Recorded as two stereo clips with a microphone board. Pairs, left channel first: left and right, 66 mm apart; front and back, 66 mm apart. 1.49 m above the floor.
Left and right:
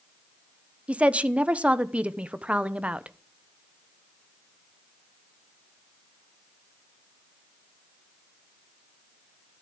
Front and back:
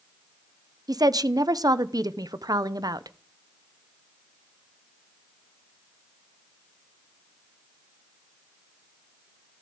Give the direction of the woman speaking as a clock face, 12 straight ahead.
5 o'clock.